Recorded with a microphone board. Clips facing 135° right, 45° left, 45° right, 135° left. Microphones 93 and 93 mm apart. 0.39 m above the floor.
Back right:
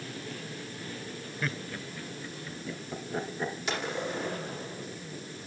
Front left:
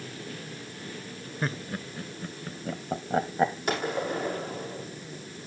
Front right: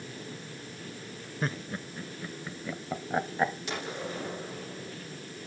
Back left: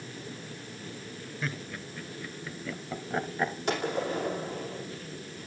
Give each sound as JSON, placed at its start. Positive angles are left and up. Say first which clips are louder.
{"t": 1.4, "sound": "laughter", "louder": "front left 4 dB, front right 4 dB", "azimuth_deg": -5, "distance_m": 1.1}
{"t": 3.7, "sound": "a gunshot", "louder": "front left 4 dB, back left 6 dB", "azimuth_deg": 90, "distance_m": 6.0}